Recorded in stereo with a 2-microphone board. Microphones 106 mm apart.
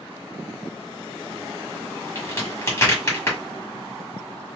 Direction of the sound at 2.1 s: 25° left (ahead or behind).